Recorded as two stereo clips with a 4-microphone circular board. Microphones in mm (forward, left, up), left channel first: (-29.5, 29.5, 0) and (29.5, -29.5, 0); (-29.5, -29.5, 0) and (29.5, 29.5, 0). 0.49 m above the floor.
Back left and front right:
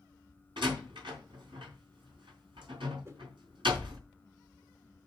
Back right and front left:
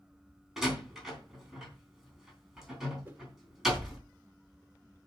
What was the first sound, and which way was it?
A door slam, 40° right.